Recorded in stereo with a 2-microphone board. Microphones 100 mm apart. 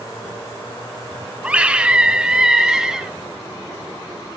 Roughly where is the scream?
Centre.